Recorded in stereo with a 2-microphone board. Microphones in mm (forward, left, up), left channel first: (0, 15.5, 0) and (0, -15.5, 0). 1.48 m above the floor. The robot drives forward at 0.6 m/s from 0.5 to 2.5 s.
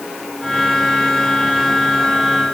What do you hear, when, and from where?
Only background noise.